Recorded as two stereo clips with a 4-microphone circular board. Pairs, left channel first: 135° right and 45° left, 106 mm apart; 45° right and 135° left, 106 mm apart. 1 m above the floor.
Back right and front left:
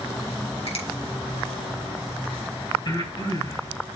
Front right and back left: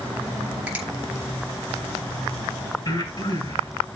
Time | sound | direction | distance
0.7 | a finger snap | 145° right | 4.5 m
2.9 | breathing | 90° right | 4 m